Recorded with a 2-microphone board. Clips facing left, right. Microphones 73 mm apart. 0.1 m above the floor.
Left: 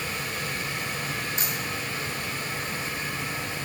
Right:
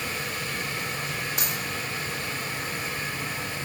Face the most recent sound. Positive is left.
turn(degrees=-75)  # may be behind; listen again after turning